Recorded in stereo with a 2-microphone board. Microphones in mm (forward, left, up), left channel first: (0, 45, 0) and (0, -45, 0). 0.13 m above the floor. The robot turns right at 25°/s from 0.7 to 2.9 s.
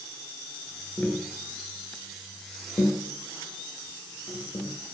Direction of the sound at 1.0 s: 15° left (ahead or behind).